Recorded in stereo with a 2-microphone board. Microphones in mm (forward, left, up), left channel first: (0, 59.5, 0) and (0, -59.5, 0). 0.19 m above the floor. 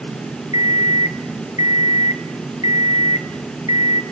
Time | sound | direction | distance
0.5 | an alarm clock | 70° left (ahead or behind) | 1.2 m